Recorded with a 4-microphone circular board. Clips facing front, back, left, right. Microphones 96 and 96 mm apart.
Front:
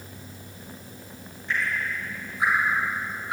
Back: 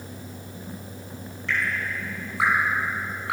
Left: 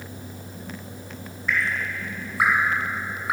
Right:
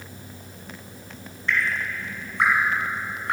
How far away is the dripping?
About 5.5 m.